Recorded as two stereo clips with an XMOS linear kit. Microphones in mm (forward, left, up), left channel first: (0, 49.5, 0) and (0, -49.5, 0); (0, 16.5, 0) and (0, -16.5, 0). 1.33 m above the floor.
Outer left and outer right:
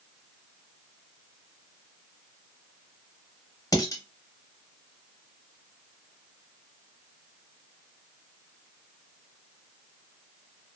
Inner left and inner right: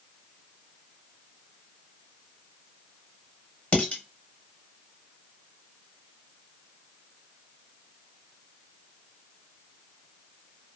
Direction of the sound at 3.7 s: 35° left (ahead or behind).